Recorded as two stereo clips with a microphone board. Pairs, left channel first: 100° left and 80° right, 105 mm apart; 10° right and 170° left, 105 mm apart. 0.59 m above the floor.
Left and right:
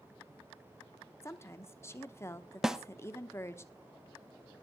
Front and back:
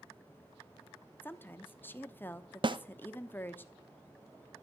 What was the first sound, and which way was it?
A woman speaking, 50° left.